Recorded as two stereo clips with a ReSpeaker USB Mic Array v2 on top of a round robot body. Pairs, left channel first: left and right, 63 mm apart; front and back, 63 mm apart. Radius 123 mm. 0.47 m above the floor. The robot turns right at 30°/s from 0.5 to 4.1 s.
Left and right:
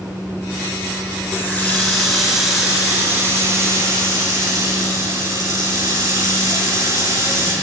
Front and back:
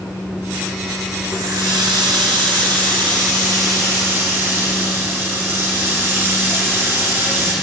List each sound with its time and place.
1.3 s a running tap: 150° left, 5.5 m; by 7.5 s 125° right, 5.5 m